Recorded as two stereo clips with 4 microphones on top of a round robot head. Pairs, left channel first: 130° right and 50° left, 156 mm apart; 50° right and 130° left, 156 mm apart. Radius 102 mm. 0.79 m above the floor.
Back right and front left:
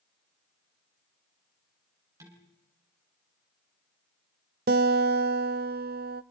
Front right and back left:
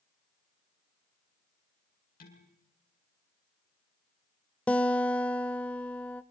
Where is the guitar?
30° left, 0.7 m.